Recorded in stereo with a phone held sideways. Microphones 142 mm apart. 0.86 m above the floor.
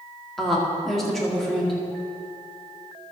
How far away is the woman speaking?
About 2.0 m.